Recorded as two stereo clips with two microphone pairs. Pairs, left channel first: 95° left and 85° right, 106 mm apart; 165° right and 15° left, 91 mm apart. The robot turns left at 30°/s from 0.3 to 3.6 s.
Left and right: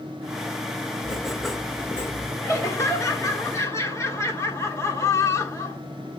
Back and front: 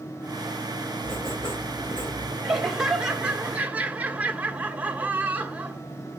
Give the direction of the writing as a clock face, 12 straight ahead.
5 o'clock.